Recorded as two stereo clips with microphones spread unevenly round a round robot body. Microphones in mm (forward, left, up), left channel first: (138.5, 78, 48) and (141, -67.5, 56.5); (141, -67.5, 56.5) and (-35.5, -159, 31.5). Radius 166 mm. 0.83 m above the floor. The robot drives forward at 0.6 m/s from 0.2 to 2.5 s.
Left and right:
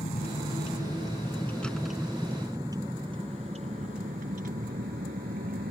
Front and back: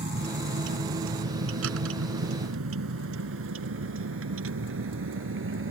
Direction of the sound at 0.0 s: 150° left.